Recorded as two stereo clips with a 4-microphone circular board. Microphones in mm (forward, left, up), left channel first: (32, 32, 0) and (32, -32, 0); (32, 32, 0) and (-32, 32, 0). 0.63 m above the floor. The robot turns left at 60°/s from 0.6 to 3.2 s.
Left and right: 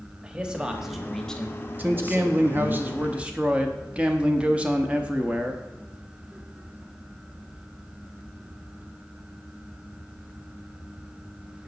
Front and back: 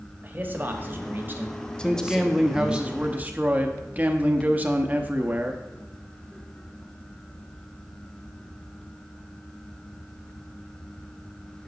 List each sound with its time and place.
0.2 s a man speaking: 155° right, 1.0 m; by 2.8 s 75° left, 1.0 m
1.8 s a man speaking: 60° right, 0.8 m; by 5.6 s 145° right, 0.8 m